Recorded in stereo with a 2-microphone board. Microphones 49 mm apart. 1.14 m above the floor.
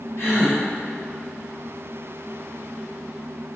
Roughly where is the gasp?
Left.